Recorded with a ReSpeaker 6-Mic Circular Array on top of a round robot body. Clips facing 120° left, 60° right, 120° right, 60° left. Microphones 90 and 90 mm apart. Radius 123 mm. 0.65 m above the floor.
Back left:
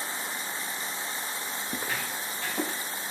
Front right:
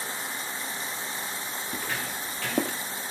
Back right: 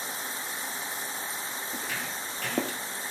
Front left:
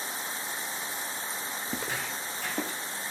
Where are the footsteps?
70° left, 0.7 m; by 2.8 s 90° right, 1.3 m.